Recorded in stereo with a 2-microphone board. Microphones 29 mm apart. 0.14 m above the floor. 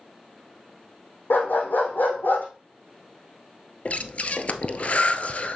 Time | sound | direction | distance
1.3 | a dog barking | 80° left | 3 m
3.9 | breathing | 50° left (ahead or behind) | 0.9 m